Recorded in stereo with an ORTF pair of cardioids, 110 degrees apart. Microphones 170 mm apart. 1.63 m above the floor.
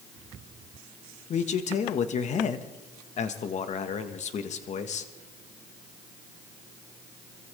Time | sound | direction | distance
1.3 | a man speaking | 50° left | 1.6 m